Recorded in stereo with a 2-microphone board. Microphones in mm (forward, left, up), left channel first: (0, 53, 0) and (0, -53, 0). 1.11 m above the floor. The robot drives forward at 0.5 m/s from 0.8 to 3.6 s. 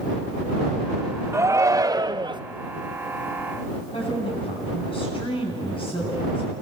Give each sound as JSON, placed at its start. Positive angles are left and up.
{"t": 1.3, "sound": "a shout", "side_deg": -25, "distance_m": 1.0}
{"t": 3.9, "sound": "a woman speaking", "side_deg": 60, "distance_m": 9.5}